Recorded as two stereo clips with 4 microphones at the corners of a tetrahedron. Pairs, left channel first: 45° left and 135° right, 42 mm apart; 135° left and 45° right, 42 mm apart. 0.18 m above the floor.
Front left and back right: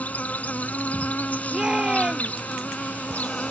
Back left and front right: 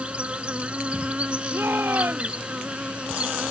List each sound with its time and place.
0.0 s an insect: 10° left
1.5 s a shout: 65° right